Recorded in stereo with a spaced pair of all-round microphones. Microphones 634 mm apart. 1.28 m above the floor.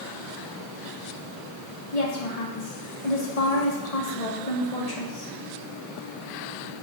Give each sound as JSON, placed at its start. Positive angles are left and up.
{"t": 1.9, "sound": "a woman speaking", "side_deg": 75, "distance_m": 2.5}